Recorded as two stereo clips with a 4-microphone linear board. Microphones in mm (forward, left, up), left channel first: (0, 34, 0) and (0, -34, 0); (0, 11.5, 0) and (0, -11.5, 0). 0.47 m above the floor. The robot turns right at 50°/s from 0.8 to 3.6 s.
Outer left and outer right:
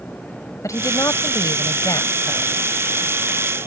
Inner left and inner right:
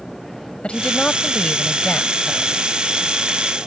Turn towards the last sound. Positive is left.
turn(degrees=-160)